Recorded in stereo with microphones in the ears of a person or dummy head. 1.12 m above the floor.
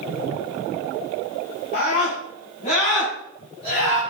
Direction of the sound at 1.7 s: 45° left (ahead or behind).